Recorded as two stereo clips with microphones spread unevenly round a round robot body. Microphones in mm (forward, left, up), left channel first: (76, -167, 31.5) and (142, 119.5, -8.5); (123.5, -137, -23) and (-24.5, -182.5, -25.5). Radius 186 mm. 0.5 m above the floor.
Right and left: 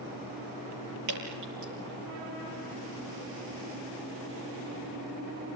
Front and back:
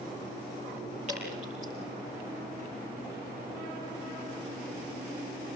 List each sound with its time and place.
1.1 s dripping: 125° left, 6 m